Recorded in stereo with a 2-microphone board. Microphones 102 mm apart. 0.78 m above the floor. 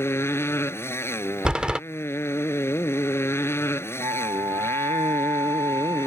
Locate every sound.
0.0 s a motorcycle: 25° left (ahead or behind)
1.4 s a door slam: 10° right (ahead or behind)
4.0 s a flute: 50° right (ahead or behind)